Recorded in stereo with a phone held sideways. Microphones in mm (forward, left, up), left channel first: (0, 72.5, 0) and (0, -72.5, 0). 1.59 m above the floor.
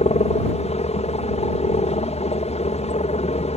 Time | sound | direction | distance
0.0 | a helicopter | 50° left (ahead or behind) | ?